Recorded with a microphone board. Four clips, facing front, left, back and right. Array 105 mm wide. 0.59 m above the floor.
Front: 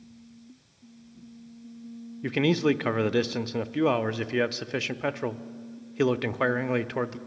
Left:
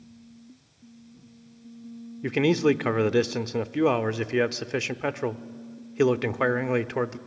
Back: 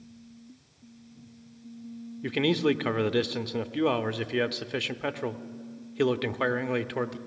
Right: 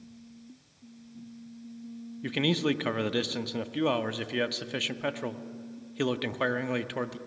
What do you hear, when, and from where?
2.2 s a man speaking: 60° left, 0.6 m